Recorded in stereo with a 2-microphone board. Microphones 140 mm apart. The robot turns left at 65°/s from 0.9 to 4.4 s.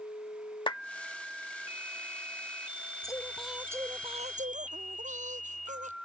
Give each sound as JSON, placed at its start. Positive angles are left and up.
{"t": 0.7, "sound": "a clap", "side_deg": 35}
{"t": 3.0, "sound": "singing", "azimuth_deg": 25}